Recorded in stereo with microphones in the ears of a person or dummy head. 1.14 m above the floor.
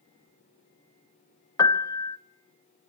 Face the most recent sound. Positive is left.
turn(degrees=20)  # may be behind; listen again after turning